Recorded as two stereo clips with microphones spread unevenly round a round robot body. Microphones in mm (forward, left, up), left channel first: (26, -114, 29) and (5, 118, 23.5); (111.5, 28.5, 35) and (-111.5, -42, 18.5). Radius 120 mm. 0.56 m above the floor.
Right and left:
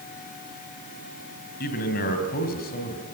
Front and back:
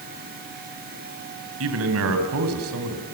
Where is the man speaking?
140° right, 3.5 m.